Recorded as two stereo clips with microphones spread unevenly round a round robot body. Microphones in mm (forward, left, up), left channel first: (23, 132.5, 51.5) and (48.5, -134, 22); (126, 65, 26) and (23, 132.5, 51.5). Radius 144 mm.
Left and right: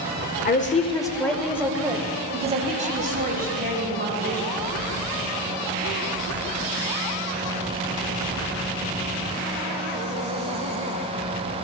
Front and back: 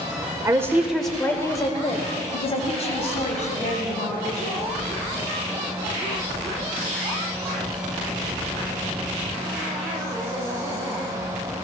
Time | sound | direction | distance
0.5 | a woman speaking | 90° left | 1.0 m